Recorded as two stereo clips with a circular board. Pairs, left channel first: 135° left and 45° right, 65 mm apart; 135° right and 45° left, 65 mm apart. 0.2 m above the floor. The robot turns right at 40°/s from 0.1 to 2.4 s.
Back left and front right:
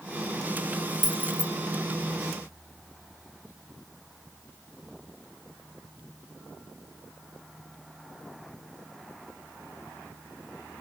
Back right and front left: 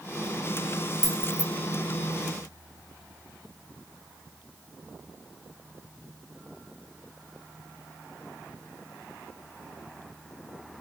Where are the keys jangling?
40° right, 2.5 m; by 1.5 s 25° right, 2.5 m.